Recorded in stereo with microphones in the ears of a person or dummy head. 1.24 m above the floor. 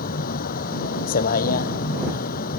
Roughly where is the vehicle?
Left.